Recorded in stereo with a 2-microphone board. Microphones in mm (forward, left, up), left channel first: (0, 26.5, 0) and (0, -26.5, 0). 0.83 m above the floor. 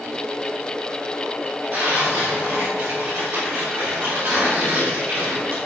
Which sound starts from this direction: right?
Tearing paper, at 1.7 s.